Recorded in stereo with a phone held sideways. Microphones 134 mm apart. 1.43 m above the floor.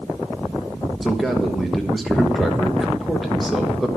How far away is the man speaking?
About 1.2 m.